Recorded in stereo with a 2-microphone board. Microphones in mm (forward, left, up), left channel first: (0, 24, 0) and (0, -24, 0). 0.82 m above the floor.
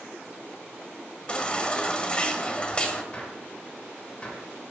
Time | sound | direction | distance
1.3 | a baby crying | 25° left (ahead or behind) | 1.1 m
3.1 | a gunshot | 25° left (ahead or behind) | 2 m